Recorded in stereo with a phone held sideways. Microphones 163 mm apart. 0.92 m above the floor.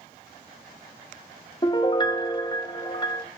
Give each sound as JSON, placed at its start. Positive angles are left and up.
{"t": 1.6, "sound": "a piano", "side_deg": 25, "distance_m": 0.7}